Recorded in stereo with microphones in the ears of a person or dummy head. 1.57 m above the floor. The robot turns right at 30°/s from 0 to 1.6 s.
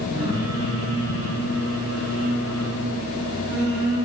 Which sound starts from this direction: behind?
Singing, at 0.1 s.